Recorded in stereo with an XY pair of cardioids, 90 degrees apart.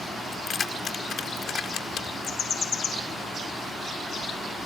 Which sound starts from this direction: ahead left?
Keys jangling, at 0.3 s.